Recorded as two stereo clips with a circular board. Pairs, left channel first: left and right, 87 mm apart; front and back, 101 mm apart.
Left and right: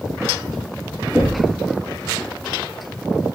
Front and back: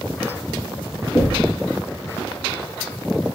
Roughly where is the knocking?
Ahead left.